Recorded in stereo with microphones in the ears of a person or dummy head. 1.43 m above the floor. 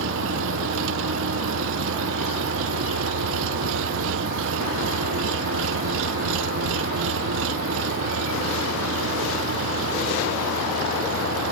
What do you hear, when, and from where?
0.0 s an engine running: 75° right (ahead or behind)